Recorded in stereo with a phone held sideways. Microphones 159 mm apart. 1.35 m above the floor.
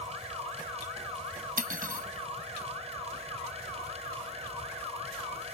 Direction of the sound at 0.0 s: 40° right (ahead or behind).